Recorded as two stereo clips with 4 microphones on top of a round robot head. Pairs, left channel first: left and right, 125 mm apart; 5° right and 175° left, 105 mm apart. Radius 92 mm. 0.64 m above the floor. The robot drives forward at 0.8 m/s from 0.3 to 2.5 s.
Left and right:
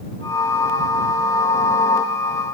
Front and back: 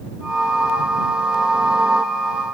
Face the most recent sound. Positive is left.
No sound to turn to.